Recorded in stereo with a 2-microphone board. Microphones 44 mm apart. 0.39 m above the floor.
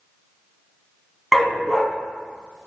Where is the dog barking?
Centre (ahead or behind), 0.8 m.